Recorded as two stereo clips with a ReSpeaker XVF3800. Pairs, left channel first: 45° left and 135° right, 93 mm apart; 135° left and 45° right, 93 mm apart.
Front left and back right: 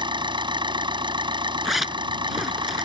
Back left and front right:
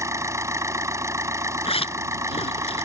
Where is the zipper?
135° left.